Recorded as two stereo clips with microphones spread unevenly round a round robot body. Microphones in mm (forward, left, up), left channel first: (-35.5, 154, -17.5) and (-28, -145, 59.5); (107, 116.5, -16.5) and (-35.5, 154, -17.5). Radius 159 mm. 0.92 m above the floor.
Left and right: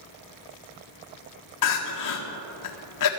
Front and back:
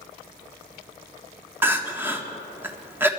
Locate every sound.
1.6 s crying: 90° left, 1.8 m